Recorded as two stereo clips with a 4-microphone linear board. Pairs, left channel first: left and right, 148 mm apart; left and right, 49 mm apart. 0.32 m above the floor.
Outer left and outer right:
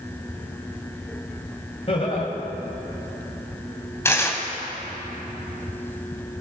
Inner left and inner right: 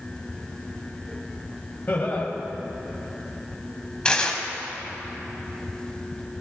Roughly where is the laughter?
Left.